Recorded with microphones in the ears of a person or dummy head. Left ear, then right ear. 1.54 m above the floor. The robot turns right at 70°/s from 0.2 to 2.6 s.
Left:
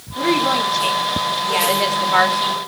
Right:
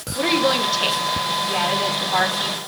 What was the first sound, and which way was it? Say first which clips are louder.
A woman speaking: left 1 dB; 65° right.